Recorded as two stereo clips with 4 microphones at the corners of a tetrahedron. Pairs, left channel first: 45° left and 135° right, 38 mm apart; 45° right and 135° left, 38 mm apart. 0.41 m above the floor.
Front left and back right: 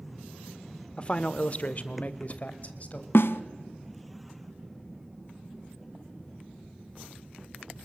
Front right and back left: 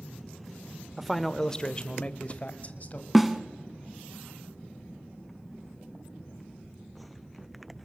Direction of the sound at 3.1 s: 50° left.